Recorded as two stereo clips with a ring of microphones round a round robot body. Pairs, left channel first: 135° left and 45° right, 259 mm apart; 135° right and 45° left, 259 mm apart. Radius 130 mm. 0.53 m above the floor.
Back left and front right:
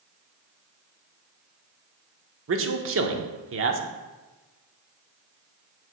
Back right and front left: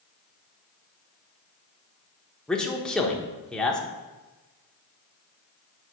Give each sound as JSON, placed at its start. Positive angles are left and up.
{"t": 2.5, "sound": "a man speaking", "azimuth_deg": -50, "distance_m": 1.0}